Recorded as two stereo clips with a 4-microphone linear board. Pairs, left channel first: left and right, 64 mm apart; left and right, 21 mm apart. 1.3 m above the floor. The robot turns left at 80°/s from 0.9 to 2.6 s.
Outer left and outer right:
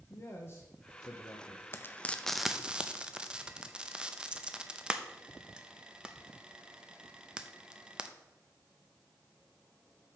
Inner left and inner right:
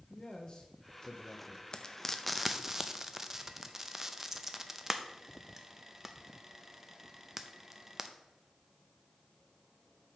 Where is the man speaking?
140° left, 1.0 m; by 1.6 s 80° left, 1.0 m.